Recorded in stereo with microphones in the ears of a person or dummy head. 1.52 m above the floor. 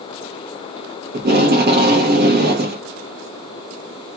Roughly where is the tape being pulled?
Right.